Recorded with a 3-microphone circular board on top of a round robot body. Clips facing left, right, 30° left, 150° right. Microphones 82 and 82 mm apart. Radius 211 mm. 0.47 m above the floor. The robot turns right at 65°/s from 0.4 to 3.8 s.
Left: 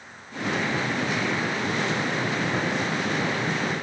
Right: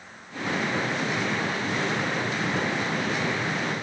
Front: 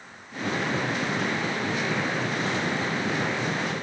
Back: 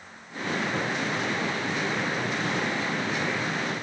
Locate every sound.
Only background noise.